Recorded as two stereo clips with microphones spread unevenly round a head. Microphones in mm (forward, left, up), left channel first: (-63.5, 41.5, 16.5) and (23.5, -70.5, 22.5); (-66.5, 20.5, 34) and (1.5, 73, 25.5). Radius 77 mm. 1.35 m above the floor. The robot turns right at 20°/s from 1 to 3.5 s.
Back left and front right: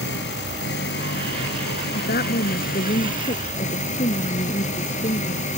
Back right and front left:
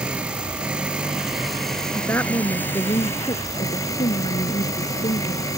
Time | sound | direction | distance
0.0 | an engine running | 115° left | ?
1.9 | a woman speaking | 150° left | ?